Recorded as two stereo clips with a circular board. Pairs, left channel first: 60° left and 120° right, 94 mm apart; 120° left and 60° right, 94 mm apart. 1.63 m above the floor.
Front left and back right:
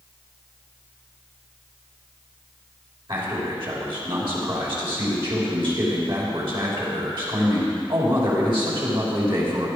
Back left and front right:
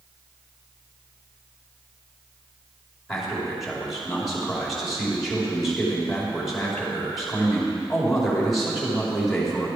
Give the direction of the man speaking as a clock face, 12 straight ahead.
5 o'clock.